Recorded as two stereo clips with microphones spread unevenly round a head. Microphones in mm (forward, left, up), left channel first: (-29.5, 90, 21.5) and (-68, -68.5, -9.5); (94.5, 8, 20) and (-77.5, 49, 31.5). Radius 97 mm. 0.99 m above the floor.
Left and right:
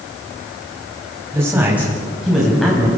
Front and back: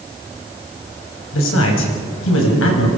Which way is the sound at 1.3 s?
25° right.